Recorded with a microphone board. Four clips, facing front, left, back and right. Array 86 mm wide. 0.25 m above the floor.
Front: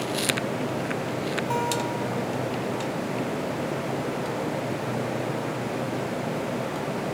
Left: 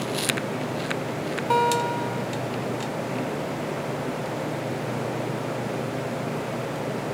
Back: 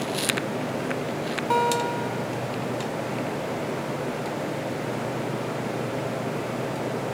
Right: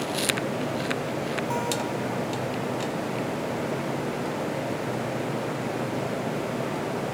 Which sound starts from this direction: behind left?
A guitar, at 1.5 s.